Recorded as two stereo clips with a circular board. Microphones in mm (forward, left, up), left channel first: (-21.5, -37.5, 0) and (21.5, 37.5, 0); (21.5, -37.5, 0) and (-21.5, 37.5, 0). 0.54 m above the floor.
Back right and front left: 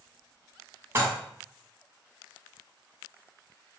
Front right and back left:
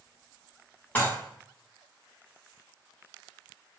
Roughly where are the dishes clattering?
Ahead.